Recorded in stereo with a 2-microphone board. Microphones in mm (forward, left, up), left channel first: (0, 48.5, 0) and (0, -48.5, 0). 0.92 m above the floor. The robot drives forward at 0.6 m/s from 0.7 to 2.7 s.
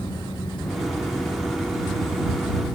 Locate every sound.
Only background noise.